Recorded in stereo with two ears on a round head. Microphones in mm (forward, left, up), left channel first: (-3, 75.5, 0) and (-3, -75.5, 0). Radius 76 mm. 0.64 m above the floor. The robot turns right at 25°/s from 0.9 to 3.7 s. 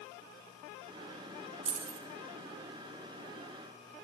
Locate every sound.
1.6 s keys jangling: 40° right (ahead or behind), 1.3 m; by 2.0 s 45° right (ahead or behind), 1.3 m